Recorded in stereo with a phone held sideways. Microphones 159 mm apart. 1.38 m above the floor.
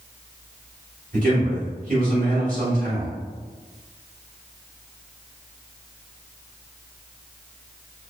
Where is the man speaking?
60° right (ahead or behind), 1.6 m.